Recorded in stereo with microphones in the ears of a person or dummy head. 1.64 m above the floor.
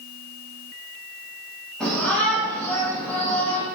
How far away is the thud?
No thud in this recording.